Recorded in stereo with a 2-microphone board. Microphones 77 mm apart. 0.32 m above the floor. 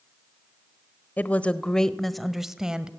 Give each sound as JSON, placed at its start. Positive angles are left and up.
{"t": 1.2, "sound": "a woman speaking", "side_deg": 20, "distance_m": 1.0}